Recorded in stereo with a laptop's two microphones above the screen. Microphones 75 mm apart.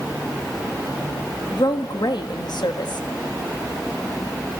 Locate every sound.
1.5 s a woman speaking: 70° left (ahead or behind), 1.2 m